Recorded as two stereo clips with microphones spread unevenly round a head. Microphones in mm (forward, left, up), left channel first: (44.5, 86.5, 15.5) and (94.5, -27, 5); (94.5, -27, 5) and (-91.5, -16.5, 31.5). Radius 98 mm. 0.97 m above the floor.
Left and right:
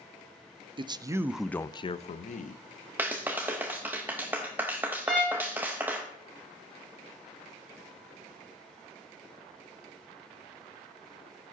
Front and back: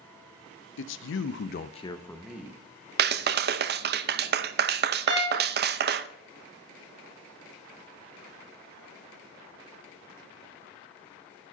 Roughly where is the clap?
Behind right.